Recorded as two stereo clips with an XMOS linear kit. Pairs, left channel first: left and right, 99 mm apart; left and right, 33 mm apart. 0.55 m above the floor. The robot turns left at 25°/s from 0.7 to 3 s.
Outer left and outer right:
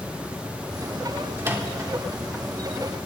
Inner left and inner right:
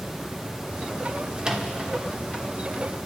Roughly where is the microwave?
Right.